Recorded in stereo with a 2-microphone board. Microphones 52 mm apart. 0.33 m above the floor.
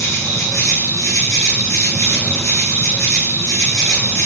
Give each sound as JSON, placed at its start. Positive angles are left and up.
{"t": 0.0, "sound": "an insect", "side_deg": 80, "distance_m": 5.5}